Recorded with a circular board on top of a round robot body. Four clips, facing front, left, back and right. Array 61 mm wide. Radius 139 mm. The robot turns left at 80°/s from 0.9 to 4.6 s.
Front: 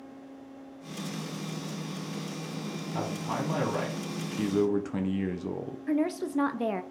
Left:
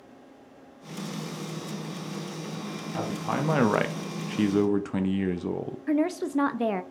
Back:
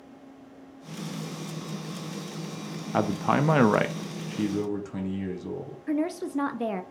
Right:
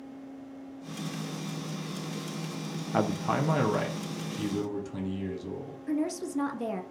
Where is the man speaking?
150° right, 0.5 m; by 5.8 s 75° left, 0.5 m.